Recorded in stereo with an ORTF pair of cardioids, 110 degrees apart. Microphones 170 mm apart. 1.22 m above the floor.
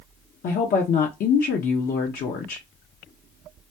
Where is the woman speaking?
60° left, 1.0 m.